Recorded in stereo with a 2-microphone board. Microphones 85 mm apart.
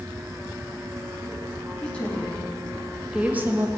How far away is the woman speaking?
About 3 m.